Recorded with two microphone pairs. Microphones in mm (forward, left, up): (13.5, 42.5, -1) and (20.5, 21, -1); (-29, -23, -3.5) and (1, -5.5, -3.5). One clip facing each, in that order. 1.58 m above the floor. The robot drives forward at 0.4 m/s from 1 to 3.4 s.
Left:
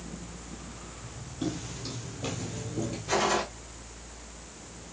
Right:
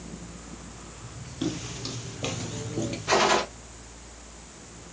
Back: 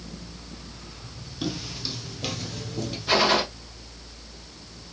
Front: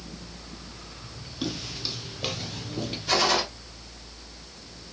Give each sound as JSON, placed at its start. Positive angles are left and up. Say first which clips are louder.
{"t": 1.4, "sound": "footsteps", "louder": "right 3 dB, back 1 dB", "azimuth_deg": -55, "distance_m": 1.9}
{"t": 3.1, "sound": "a gunshot", "louder": "right 5 dB, back 3 dB", "azimuth_deg": -85, "distance_m": 2.0}